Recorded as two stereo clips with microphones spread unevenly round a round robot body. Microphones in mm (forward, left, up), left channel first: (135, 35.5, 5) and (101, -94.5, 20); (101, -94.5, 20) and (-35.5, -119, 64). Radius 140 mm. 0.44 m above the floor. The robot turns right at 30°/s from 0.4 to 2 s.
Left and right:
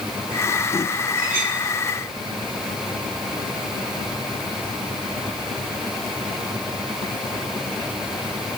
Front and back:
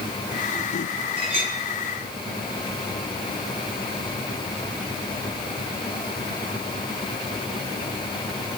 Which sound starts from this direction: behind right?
A clink, at 1.2 s.